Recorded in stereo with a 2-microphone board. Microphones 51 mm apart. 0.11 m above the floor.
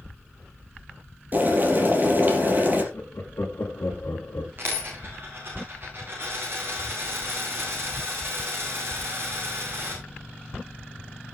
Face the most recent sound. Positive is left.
turn(degrees=-50)  # may be behind; listen again after turning